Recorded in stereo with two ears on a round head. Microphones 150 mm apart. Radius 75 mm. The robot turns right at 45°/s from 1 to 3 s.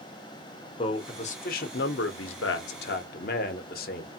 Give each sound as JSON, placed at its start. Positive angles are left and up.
{"t": 0.8, "sound": "a man speaking", "azimuth_deg": 30, "distance_m": 0.7}